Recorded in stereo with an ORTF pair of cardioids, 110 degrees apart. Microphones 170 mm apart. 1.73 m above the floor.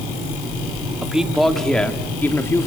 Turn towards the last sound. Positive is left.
turn(degrees=20)